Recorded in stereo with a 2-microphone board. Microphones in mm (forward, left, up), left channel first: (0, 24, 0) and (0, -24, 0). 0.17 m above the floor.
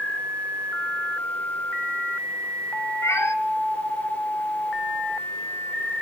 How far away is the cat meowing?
About 1.0 m.